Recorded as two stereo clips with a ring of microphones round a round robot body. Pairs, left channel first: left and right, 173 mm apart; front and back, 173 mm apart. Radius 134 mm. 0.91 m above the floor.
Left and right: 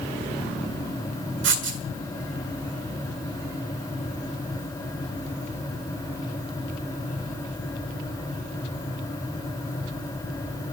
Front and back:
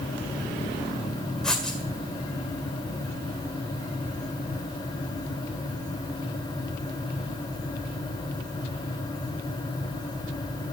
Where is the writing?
90° right, 1.7 m.